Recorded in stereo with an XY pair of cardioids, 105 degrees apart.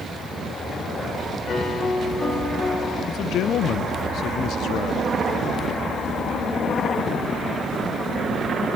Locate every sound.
1.5 s a piano: 45° left, 7.5 m
3.1 s a man speaking: 70° left, 0.7 m